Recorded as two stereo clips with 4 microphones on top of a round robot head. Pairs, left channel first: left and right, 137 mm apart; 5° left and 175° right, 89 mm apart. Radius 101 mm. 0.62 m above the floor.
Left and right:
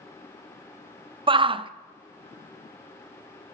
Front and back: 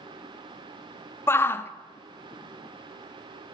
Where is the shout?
50° right, 0.7 m.